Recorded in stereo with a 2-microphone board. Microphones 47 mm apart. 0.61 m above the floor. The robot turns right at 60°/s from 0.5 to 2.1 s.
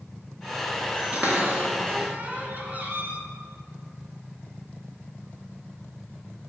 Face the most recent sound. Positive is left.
turn(degrees=-30)  # may be behind; listen again after turning